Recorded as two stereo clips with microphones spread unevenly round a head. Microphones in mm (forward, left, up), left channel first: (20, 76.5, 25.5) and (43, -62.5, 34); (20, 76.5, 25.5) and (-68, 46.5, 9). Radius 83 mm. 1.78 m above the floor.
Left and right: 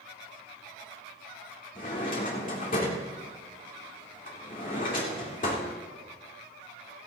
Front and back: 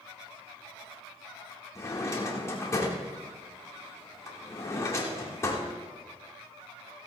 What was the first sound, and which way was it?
A drawer, 75° left.